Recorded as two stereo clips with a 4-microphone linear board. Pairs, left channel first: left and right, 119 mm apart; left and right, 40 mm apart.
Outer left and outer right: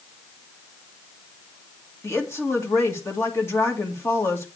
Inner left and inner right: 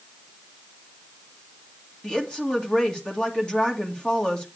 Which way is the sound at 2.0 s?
25° left (ahead or behind).